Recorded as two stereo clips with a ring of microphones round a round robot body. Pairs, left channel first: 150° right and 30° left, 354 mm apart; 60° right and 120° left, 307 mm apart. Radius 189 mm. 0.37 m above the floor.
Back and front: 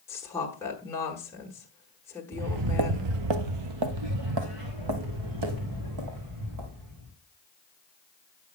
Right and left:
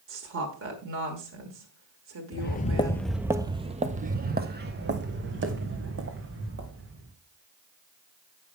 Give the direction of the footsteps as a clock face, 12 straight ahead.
1 o'clock.